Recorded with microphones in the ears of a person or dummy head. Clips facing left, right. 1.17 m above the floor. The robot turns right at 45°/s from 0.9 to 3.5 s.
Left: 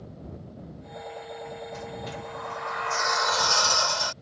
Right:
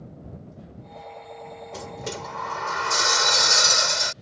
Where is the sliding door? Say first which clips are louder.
Right 2 dB; 110° right; by 4.1 s 30° right.